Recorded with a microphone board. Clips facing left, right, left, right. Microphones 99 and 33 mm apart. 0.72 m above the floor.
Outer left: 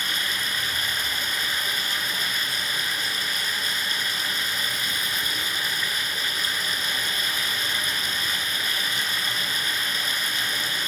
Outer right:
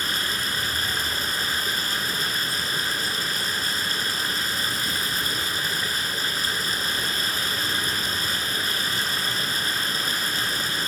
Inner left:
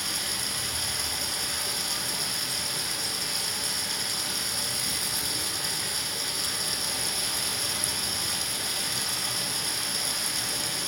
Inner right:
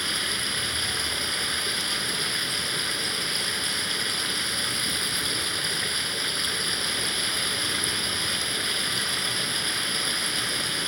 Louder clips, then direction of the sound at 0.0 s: Outer right 1 dB, inner right 5 dB; 35° right (ahead or behind).